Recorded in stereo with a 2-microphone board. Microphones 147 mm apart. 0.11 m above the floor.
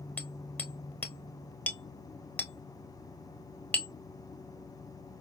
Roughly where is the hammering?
Centre.